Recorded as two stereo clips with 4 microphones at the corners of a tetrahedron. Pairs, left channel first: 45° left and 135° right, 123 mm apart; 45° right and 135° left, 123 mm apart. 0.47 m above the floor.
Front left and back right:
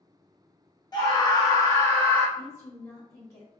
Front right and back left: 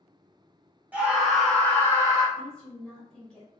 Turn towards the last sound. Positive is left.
turn(degrees=25)